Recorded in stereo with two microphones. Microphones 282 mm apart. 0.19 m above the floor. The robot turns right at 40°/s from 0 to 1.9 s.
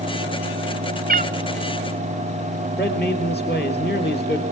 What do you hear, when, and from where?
1.1 s a cat meowing: 30° right (ahead or behind), 0.5 m; by 1.3 s 25° right (ahead or behind), 0.5 m
2.8 s a man speaking: 35° left (ahead or behind), 4 m